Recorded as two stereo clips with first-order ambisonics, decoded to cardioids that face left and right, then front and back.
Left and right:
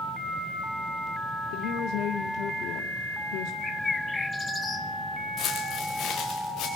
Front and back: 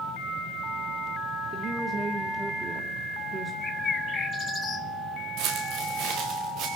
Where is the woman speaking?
110° left, 1.8 m.